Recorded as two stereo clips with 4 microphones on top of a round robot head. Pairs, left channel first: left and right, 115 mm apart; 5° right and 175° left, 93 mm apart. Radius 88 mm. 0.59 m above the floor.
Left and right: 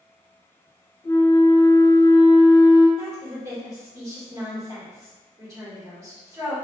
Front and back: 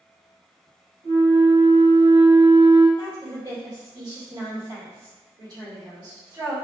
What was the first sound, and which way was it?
A flute, 150° left.